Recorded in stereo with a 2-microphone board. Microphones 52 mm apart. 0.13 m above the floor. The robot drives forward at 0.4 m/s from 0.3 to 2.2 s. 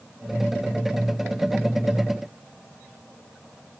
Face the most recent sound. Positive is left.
No sound to turn to.